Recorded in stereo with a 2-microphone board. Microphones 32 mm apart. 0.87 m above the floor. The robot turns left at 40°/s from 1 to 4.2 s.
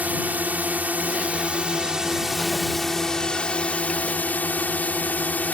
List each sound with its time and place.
0.0 s a drone: 115° right; by 5.5 s 115° left